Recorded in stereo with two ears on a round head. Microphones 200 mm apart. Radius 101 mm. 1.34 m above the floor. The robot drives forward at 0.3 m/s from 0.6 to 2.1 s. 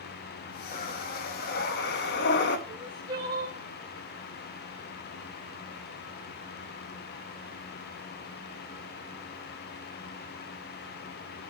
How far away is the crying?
About 2 m.